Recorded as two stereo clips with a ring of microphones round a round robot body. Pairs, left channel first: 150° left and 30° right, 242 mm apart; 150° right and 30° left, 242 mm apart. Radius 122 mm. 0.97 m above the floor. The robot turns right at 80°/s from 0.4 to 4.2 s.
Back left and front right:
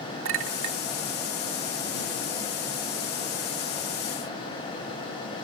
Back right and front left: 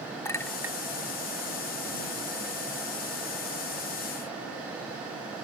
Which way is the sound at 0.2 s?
70° right.